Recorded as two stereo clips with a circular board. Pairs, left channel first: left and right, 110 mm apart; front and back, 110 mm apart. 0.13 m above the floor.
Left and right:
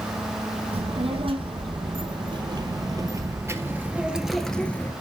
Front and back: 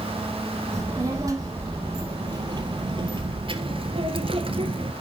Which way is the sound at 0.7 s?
120° right.